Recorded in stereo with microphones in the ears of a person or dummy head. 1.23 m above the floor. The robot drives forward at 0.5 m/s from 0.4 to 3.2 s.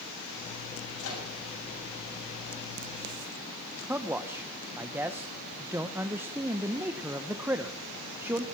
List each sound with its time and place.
1.0 s a microwave: 70° left (ahead or behind), 8 m
3.9 s a man speaking: 10° right (ahead or behind), 0.6 m